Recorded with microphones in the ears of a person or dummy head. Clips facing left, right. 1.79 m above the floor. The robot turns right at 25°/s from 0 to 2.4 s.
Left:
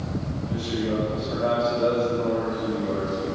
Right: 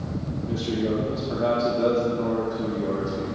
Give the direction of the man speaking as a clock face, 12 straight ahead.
4 o'clock.